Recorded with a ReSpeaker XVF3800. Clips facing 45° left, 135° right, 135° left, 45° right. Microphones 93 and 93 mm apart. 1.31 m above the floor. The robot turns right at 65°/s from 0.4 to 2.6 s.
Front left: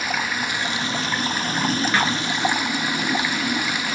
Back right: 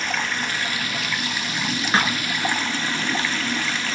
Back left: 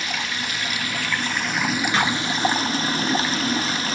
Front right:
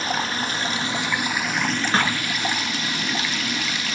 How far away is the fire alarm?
I don't hear a fire alarm.